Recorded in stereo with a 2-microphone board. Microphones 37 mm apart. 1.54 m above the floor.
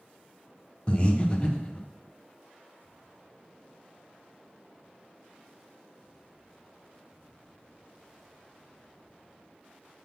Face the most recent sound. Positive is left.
turn(degrees=30)  # may be behind; listen again after turning